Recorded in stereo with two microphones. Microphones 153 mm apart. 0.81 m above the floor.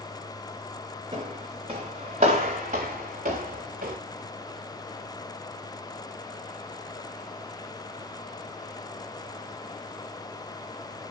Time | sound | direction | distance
1.1 | footsteps | 35° right (ahead or behind) | 5 m